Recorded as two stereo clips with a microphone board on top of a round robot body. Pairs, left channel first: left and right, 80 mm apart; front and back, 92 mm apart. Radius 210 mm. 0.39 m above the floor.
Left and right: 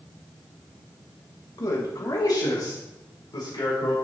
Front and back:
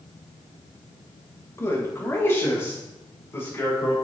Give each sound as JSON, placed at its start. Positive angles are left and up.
{"t": 1.6, "sound": "a man speaking", "azimuth_deg": 60, "distance_m": 3.0}